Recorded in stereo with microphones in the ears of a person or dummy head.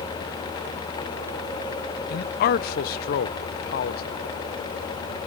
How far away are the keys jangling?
No keys jangling in this recording.